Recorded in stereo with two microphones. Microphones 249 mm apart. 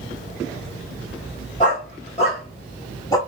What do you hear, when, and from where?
1.6 s a dog barking: 30° left (ahead or behind), 1.5 m; by 3.2 s 15° left (ahead or behind), 1.1 m